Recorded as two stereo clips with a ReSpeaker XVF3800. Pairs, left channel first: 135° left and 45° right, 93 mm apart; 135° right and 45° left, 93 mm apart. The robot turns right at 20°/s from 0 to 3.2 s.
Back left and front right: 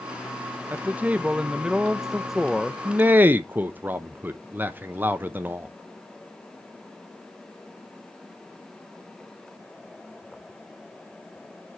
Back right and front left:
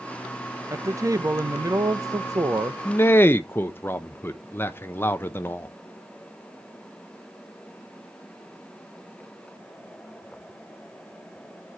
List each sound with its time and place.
0.7 s a man speaking: 15° left, 0.6 m; by 2.8 s 55° left, 0.6 m
2.9 s a man speaking: 100° right, 0.6 m; by 5.7 s 95° right, 0.6 m